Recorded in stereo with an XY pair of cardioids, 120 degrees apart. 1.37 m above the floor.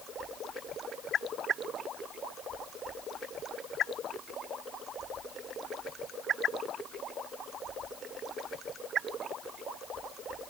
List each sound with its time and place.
Only background noise.